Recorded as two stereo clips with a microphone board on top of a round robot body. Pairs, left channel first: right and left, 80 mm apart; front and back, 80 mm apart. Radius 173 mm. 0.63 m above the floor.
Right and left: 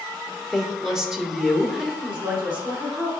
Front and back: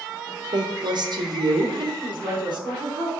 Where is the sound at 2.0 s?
160° left, 3 m.